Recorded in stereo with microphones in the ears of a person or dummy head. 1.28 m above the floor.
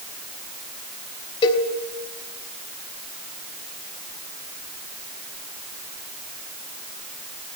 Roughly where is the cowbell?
Left.